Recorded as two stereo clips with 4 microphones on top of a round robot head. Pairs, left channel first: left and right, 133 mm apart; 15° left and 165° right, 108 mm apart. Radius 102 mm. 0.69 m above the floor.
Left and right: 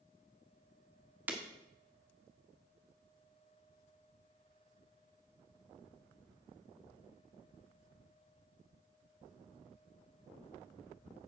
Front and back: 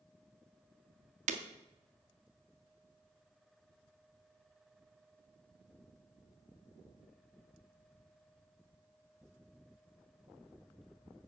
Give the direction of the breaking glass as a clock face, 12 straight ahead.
6 o'clock.